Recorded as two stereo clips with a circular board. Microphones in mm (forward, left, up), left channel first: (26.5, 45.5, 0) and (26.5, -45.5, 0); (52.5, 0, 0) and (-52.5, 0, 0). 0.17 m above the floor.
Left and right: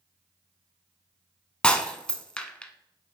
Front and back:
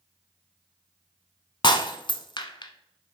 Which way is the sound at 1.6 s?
15° left.